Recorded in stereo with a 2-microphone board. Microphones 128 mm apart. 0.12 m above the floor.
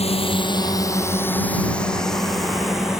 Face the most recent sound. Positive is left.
turn(degrees=-5)  # may be behind; listen again after turning